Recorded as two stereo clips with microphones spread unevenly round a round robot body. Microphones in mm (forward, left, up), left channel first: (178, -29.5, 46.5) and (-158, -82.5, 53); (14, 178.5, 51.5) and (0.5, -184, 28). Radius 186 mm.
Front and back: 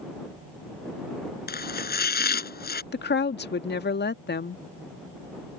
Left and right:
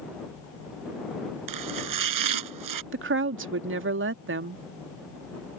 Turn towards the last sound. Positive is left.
turn(degrees=-45)